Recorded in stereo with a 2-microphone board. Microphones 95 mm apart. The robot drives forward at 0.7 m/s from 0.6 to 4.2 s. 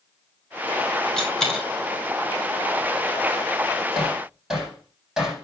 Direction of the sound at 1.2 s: 5° left (ahead or behind).